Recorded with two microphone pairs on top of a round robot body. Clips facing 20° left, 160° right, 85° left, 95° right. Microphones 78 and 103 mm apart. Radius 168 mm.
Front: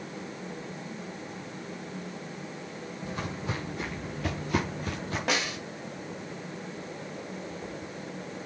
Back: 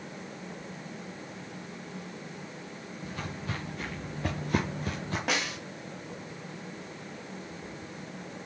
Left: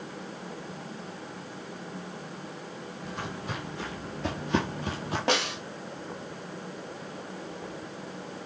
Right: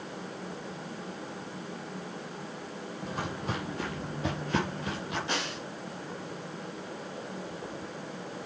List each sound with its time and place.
3.0 s footsteps: 45° right, 2 m; by 5.2 s 140° left, 1.7 m
5.3 s a snare drum: 110° left, 1.5 m